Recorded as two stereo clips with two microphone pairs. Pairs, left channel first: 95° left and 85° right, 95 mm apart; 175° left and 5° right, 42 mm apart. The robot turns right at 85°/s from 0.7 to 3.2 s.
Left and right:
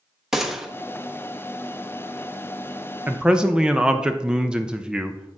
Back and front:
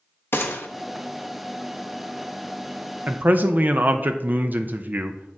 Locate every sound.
0.3 s a gunshot: 165° right, 0.9 m
3.1 s a man speaking: 25° right, 0.5 m; by 5.4 s 10° right, 0.5 m